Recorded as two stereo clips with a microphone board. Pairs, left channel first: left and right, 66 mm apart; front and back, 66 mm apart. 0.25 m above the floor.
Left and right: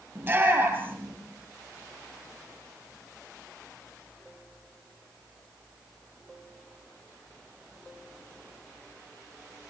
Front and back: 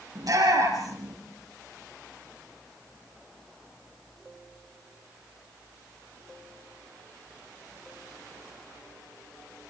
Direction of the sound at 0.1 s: 150° right.